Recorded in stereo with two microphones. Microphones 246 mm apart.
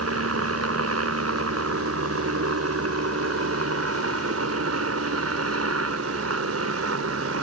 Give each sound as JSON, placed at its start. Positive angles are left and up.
{"t": 0.0, "sound": "a helicopter", "side_deg": -75}